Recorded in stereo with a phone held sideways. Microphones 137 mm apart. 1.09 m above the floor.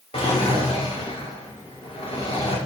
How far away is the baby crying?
I don't hear a baby crying.